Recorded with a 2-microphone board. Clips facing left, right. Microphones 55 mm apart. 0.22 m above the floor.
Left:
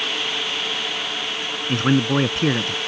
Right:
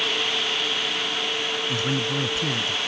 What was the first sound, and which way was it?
A man speaking, 50° left (ahead or behind).